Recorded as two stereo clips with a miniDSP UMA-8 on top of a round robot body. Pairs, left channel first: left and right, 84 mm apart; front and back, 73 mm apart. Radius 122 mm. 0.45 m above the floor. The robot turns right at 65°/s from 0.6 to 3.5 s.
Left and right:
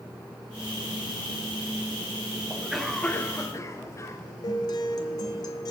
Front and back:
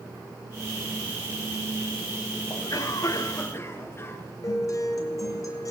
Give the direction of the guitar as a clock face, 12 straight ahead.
10 o'clock.